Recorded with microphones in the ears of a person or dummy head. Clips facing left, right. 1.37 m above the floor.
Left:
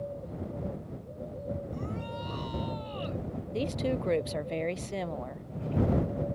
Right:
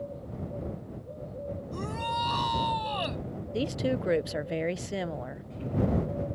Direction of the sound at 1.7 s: 85° right.